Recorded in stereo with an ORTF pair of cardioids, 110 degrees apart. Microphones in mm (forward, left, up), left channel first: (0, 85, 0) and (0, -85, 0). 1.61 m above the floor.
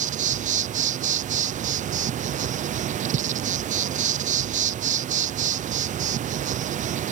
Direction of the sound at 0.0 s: 45° right.